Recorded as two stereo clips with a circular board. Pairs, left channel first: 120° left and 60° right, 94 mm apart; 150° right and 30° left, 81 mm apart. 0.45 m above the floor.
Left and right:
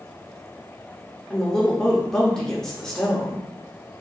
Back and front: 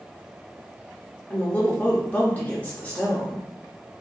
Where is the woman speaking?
170° right, 0.8 m.